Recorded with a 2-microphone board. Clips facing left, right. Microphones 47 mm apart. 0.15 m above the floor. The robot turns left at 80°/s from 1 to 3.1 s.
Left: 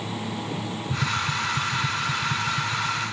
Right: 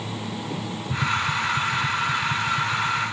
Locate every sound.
0.9 s tapping: 10° left (ahead or behind), 1.2 m; by 3.1 s 5° right (ahead or behind), 1.2 m